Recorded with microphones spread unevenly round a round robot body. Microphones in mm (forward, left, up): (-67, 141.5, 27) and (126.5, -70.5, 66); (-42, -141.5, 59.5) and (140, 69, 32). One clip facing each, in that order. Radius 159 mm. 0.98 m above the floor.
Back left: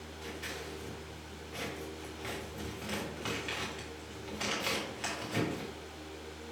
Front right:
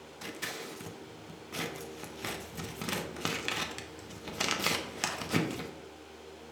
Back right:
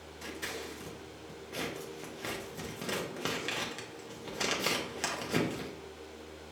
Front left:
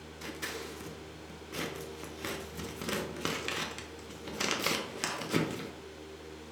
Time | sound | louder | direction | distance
0.2 | scissors | front right 1 dB, even | 30° right | 0.6 m